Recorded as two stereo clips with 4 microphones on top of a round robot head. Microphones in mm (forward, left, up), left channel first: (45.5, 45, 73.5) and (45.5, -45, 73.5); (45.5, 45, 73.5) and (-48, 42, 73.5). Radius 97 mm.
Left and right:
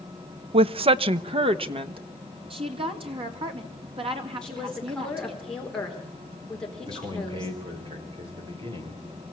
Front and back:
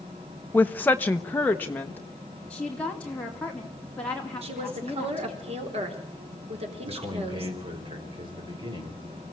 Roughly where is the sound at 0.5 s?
Right.